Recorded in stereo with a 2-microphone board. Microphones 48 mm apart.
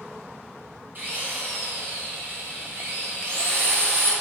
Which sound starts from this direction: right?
A drill, at 0.9 s.